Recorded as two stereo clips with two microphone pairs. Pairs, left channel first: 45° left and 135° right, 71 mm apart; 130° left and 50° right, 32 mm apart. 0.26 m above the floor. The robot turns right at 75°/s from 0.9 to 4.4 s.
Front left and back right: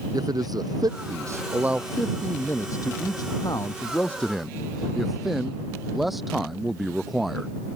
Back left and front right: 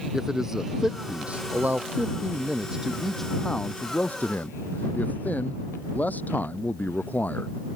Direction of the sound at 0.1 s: 125° right.